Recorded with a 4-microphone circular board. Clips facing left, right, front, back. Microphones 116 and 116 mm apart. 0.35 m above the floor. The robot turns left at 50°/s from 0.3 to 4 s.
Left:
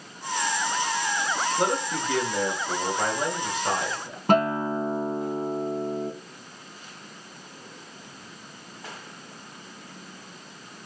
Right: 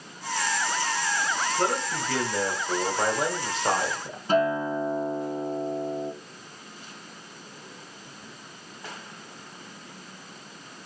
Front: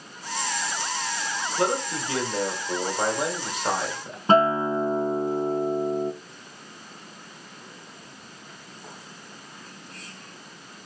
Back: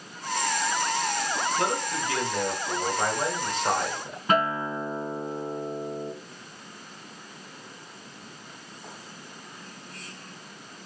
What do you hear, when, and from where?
1.6 s a man speaking: 30° left, 1.2 m; by 4.2 s 90° right, 1.2 m
4.3 s a guitar: 60° left, 0.6 m